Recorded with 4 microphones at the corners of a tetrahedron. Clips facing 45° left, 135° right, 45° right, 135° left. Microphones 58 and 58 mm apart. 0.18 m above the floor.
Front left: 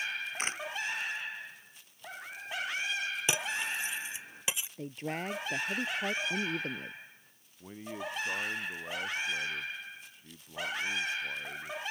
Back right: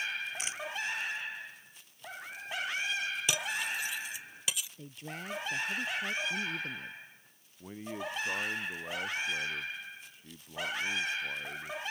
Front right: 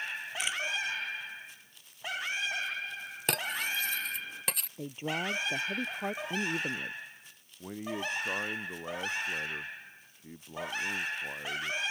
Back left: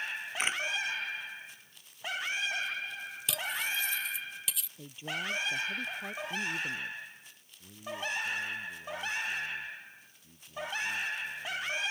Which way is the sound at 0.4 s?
90° left.